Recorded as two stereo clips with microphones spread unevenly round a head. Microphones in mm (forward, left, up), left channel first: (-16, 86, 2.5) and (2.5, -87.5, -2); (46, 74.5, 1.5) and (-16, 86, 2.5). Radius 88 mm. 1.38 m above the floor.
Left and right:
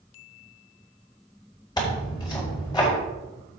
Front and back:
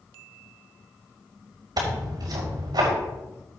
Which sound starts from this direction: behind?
Tearing paper, at 1.8 s.